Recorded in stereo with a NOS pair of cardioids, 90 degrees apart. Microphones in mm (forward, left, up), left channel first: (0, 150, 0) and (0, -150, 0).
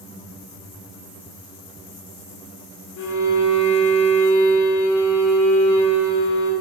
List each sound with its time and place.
3.0 s a violin: 70° left, 4 m